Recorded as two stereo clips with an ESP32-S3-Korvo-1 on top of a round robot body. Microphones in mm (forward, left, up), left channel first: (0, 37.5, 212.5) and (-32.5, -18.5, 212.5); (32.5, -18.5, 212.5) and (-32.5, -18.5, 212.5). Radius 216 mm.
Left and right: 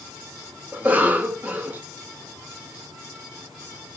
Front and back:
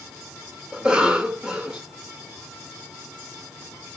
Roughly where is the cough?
Behind right.